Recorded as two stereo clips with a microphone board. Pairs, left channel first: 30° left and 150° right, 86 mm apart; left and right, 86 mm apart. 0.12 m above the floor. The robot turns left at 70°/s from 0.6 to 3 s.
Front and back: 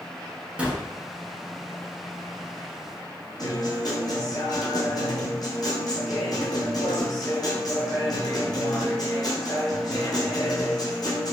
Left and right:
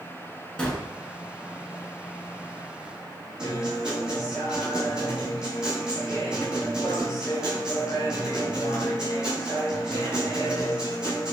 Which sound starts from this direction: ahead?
A guitar, at 3.4 s.